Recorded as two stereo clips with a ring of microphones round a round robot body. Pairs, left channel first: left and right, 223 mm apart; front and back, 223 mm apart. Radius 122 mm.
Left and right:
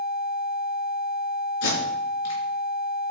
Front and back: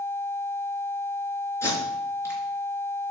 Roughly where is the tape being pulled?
Left.